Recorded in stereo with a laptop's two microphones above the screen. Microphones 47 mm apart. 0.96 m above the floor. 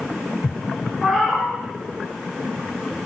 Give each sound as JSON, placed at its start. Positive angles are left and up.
{"t": 1.0, "sound": "a cat meowing", "side_deg": 0, "distance_m": 0.8}